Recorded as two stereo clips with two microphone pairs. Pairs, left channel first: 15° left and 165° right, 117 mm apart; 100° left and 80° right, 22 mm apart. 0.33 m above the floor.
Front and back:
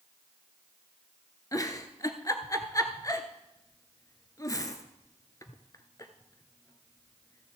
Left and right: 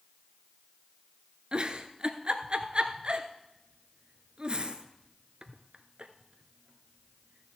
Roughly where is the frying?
I don't hear frying.